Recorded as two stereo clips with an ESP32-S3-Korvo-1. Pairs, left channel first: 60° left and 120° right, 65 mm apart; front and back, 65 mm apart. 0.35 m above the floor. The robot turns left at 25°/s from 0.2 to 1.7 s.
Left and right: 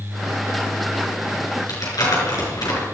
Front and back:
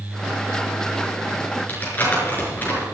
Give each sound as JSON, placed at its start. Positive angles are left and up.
{"t": 1.7, "sound": "crumpling", "azimuth_deg": 60, "distance_m": 5.5}